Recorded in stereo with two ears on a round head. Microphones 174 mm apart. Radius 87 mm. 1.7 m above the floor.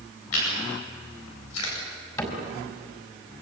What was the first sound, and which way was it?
Chewing, 90° left.